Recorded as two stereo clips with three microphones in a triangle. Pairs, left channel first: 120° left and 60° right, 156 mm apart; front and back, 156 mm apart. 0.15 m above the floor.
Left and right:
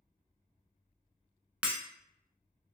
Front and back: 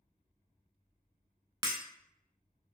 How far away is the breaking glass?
About 0.6 m.